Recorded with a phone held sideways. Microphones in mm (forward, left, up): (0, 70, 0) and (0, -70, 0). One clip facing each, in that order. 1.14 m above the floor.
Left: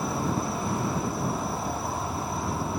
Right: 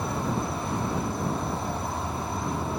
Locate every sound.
0.0 s an insect: 5° left (ahead or behind)